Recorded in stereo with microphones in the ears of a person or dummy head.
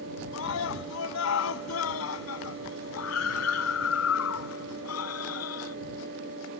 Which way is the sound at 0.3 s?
85° left.